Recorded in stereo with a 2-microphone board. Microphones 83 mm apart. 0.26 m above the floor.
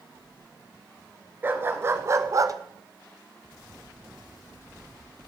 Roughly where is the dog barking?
Right.